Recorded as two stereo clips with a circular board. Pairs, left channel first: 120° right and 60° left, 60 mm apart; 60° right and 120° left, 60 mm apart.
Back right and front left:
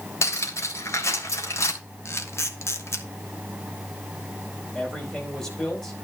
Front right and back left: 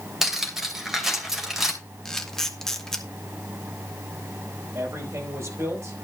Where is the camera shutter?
140° right, 1.6 m.